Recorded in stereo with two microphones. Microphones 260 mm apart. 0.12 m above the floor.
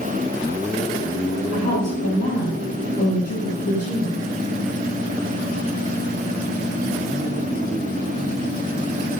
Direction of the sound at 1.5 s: 70° left (ahead or behind).